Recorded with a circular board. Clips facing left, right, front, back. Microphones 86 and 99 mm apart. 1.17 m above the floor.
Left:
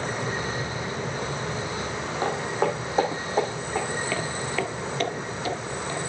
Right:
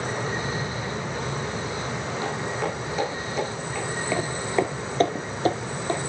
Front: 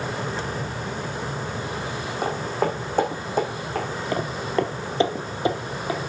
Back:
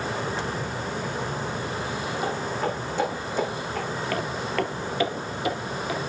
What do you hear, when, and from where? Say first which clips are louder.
2.2 s footsteps: left 5 dB, front 4 dB; 35° left, 3.5 m
4.1 s footsteps: right 3 dB, front 4 dB; 35° right, 1.2 m; by 6.0 s 55° right, 2 m